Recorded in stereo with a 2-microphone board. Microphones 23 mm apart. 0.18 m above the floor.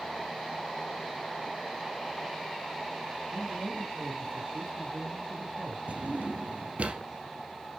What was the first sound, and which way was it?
A man speaking, 70° right (ahead or behind).